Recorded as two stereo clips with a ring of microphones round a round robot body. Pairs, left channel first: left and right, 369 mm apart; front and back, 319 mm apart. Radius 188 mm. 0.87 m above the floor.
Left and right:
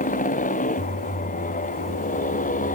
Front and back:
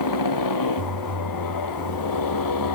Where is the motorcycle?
20° left.